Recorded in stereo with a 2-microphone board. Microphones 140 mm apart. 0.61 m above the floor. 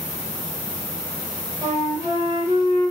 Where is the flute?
20° right (ahead or behind), 2 m.